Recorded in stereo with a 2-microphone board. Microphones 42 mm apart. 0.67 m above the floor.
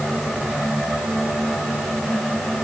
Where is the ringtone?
No ringtone in this recording.